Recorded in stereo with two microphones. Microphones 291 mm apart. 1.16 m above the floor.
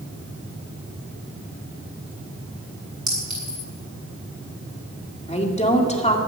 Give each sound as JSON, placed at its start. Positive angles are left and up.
{"t": 3.1, "sound": "a clink", "side_deg": -75, "distance_m": 7.5}
{"t": 5.3, "sound": "a woman speaking", "side_deg": 20, "distance_m": 2.0}